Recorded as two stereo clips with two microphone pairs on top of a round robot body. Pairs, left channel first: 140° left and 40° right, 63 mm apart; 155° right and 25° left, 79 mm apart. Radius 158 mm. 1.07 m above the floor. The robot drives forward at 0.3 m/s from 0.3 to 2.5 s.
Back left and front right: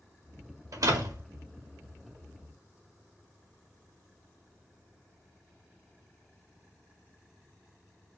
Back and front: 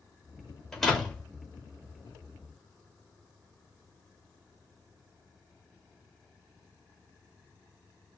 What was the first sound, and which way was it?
A door slam, 70° right.